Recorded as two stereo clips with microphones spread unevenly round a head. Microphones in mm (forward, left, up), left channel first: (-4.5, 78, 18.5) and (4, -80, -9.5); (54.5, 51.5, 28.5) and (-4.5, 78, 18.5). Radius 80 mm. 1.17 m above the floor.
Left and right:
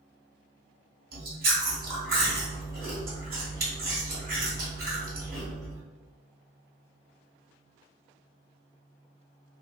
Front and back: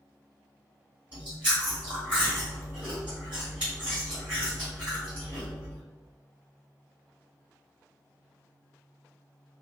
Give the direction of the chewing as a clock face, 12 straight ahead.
4 o'clock.